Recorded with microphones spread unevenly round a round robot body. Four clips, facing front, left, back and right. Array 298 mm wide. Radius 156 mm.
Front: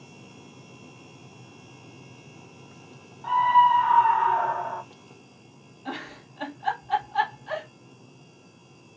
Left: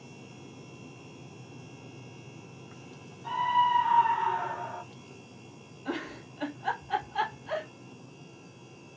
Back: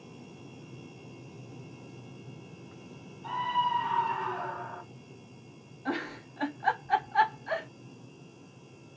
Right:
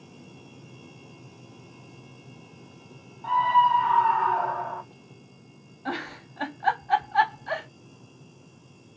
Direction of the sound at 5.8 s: 70° right.